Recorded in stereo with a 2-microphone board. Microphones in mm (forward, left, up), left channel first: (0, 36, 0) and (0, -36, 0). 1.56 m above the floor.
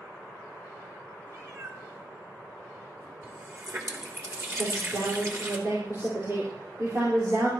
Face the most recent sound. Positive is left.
turn(degrees=-40)  # may be behind; listen again after turning